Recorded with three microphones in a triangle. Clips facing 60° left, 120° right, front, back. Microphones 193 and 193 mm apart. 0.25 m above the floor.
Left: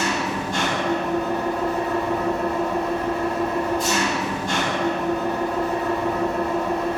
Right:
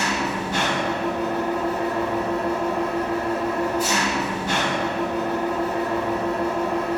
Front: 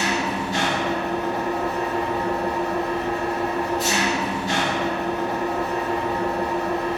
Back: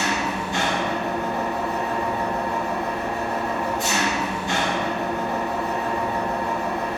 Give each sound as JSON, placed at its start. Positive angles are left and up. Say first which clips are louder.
{"t": 0.0, "sound": "an engine running", "louder": "left 1 dB, front 1 dB", "azimuth_deg": -35, "distance_m": 0.8}